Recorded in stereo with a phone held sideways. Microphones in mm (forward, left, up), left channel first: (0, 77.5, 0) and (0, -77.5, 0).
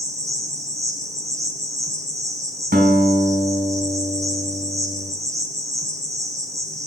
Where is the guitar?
80° right, 3.5 m.